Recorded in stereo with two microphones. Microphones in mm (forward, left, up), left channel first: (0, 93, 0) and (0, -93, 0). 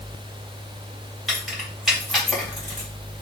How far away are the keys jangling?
About 2.5 m.